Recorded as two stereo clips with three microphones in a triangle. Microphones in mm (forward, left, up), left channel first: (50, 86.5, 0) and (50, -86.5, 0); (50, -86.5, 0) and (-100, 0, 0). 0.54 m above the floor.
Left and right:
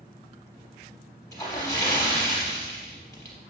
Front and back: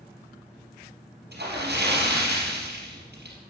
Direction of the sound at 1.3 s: 160° left.